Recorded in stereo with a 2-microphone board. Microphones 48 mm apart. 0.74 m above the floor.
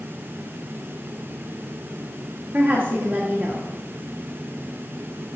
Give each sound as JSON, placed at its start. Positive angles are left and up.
{"t": 2.5, "sound": "a woman speaking", "side_deg": -45, "distance_m": 1.6}